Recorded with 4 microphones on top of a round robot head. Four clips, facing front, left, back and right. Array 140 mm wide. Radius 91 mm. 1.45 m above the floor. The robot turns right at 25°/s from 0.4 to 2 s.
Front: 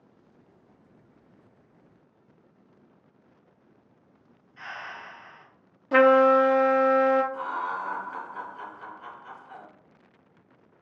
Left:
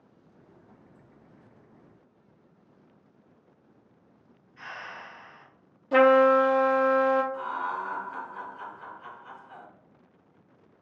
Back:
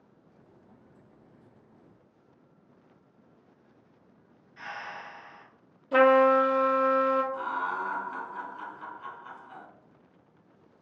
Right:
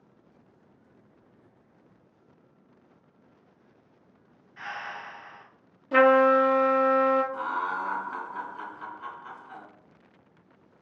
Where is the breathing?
105° right, 1.9 m.